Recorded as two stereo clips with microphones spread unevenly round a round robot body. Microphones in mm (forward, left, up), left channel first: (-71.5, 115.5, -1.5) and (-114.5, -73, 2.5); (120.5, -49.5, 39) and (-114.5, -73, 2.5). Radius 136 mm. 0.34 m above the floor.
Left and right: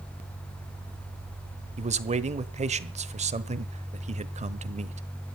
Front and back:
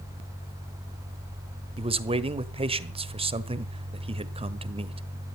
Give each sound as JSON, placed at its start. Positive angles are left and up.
{"t": 1.8, "sound": "a man speaking", "azimuth_deg": -135, "distance_m": 1.3}